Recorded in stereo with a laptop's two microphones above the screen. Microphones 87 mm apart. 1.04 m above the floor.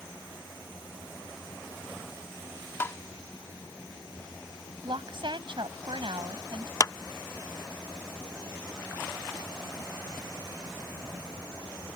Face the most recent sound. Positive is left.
turn(degrees=35)  # may be behind; listen again after turning